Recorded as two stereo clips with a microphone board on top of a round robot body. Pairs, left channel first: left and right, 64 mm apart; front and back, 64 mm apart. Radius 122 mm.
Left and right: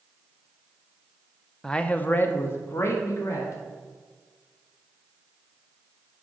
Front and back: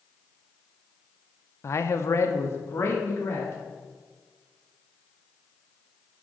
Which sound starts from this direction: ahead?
A man speaking, at 1.6 s.